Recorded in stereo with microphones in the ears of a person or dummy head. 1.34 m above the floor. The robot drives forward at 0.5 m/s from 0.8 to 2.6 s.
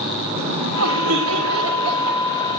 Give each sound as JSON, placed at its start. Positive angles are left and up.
{"t": 0.3, "sound": "laughter", "side_deg": -90, "distance_m": 10.0}